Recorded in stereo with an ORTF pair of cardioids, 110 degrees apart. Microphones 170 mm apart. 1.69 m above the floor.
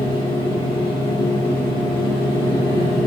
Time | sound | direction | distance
0.0 | a machine running | 30° left | 0.9 m